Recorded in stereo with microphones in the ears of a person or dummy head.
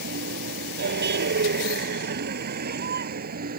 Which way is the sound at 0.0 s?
55° right (ahead or behind).